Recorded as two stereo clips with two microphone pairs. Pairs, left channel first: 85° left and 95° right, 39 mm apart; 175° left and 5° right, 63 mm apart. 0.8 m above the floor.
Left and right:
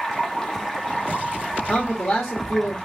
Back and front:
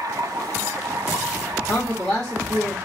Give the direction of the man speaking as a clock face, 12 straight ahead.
9 o'clock.